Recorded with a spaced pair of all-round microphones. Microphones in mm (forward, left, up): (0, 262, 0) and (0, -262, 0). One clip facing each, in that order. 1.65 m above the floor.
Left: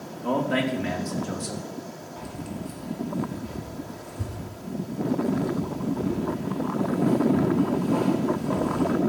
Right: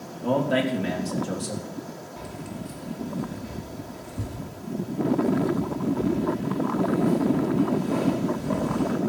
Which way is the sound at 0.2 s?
55° right (ahead or behind).